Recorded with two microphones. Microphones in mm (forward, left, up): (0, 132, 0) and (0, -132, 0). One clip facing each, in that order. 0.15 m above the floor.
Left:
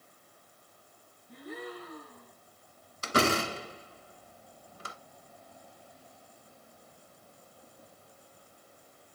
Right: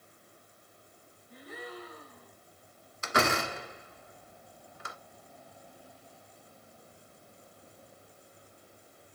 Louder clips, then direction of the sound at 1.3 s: Left 3 dB; 65° left (ahead or behind).